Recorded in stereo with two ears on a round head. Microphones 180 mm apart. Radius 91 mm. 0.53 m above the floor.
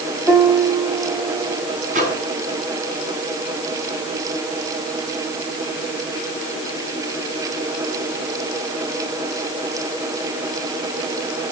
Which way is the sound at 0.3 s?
5° right (ahead or behind).